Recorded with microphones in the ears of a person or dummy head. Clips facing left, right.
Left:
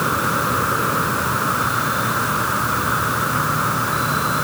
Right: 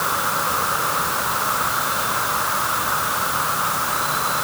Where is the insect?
40° left (ahead or behind).